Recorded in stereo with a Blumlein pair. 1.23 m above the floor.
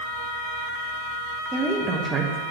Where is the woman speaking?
15° right, 1.1 m.